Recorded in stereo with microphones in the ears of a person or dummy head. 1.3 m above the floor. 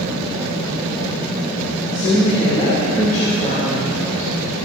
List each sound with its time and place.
1.9 s a woman speaking: 30° left (ahead or behind), 3 m